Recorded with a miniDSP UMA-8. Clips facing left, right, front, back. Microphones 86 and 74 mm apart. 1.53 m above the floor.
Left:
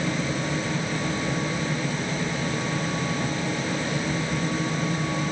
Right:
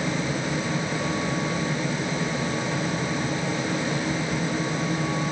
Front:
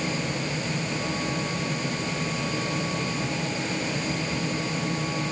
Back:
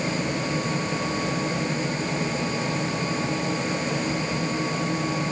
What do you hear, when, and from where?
Only background noise.